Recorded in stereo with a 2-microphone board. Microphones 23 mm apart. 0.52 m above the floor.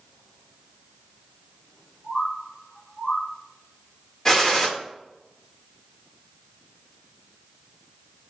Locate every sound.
2.0 s a bird: 55° left (ahead or behind), 4.5 m
4.2 s a gunshot: 20° left (ahead or behind), 1.6 m